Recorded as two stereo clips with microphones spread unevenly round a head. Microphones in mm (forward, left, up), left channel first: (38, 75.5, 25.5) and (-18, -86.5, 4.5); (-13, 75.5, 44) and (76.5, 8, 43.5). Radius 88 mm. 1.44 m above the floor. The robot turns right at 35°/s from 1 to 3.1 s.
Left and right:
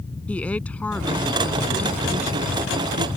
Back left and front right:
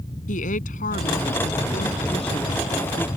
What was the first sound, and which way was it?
A woman speaking, 155° left.